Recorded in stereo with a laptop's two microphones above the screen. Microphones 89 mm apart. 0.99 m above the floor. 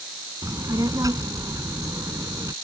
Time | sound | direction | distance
0.4 | a child speaking | 40° right (ahead or behind) | ?